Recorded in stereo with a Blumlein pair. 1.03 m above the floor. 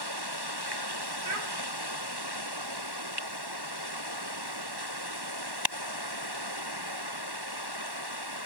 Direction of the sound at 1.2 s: 45° right.